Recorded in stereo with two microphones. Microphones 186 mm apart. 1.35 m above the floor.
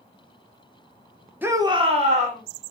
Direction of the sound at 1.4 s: 10° right (ahead or behind).